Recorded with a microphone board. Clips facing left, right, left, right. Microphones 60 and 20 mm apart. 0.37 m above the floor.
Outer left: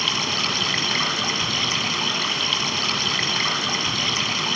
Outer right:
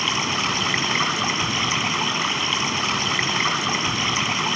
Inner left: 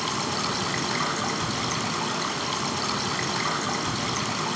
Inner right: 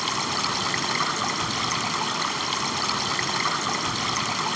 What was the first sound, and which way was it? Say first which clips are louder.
Running water: outer right 2 dB, inner right 2 dB; 20° right (ahead or behind).